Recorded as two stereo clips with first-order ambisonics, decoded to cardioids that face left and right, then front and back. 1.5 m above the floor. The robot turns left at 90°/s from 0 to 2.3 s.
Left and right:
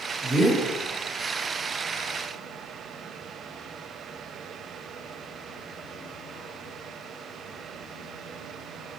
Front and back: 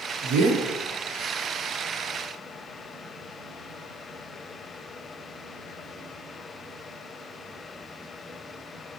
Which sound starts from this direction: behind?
A man speaking, at 0.2 s.